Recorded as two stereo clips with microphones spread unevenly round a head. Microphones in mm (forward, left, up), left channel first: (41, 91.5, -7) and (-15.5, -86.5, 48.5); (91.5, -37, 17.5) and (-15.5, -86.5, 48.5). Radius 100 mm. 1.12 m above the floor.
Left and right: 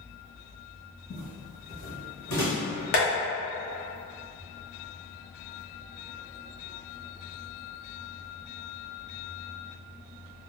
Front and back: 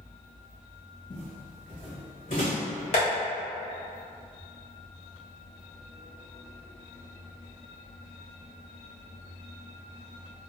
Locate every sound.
1.1 s footsteps: 85° left, 1.8 m; by 2.5 s 60° left, 2 m
2.9 s tapping: 45° left, 1.2 m